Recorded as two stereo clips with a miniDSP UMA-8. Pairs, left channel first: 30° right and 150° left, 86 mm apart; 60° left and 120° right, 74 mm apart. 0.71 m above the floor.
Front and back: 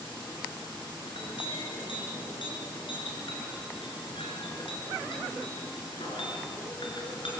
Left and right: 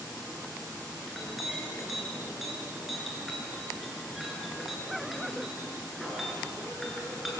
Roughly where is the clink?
Ahead right.